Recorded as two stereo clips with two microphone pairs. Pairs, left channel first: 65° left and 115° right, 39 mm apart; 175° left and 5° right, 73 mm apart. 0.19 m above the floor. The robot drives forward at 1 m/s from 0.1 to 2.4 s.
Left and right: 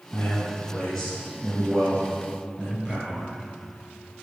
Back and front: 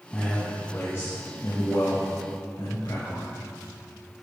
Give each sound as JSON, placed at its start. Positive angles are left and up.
{"t": 0.1, "sound": "a man speaking", "azimuth_deg": 105, "distance_m": 1.4}